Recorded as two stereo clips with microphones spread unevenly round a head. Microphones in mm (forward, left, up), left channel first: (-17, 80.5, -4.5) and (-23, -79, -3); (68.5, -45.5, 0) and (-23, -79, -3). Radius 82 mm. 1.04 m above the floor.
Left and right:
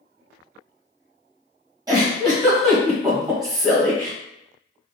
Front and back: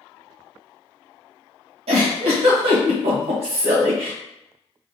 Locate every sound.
1.9 s a giggle: 160° right, 1.3 m